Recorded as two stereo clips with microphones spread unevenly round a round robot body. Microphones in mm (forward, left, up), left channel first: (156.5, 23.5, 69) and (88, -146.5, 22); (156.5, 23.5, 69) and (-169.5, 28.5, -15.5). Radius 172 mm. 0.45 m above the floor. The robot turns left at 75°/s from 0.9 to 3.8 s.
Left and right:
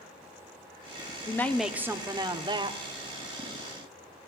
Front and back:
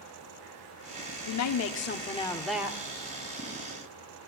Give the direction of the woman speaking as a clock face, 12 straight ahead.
1 o'clock.